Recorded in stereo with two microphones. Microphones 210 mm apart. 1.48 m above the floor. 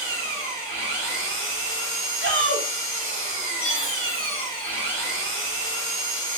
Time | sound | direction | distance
0.0 | an engine running | 75° left (ahead or behind) | 1.2 m
2.2 | a shout | 70° right (ahead or behind) | 0.9 m
3.6 | a chime | 25° left (ahead or behind) | 1.2 m